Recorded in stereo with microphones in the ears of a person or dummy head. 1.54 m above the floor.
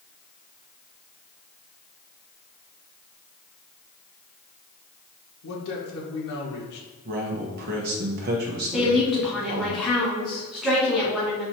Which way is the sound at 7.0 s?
50° right (ahead or behind).